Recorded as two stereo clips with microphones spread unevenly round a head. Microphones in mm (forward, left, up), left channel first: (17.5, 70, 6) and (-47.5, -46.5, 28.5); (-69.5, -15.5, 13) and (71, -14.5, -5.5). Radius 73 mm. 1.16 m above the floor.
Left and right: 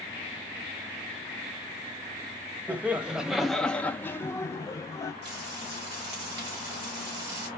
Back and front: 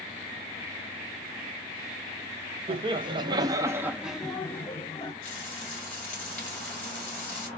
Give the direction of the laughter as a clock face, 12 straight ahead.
1 o'clock.